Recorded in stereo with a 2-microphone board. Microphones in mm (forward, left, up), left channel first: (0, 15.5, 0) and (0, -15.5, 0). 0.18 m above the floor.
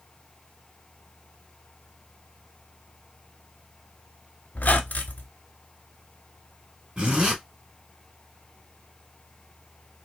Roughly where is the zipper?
Right.